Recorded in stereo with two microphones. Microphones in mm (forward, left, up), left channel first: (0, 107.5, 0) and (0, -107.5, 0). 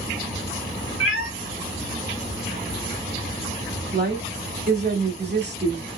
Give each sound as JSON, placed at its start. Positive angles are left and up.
{"t": 1.0, "sound": "a cat meowing", "side_deg": -75, "distance_m": 1.3}
{"t": 3.9, "sound": "a woman speaking", "side_deg": -50, "distance_m": 1.7}